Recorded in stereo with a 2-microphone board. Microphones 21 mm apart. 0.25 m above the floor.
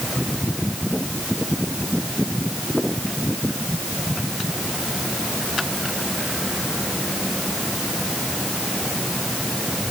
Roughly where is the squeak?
No squeak in this recording.